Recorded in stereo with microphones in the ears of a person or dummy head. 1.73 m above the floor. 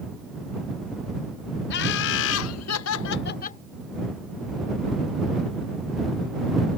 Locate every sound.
1.7 s laughter: 60° left (ahead or behind); by 3.6 s 35° left (ahead or behind)